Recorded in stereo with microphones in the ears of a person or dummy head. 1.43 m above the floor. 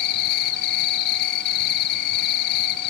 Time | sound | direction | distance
0.0 | an insect | 55° left (ahead or behind) | 1.0 m